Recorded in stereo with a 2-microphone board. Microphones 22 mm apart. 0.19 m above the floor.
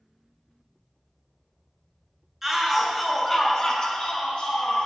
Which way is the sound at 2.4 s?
15° right (ahead or behind).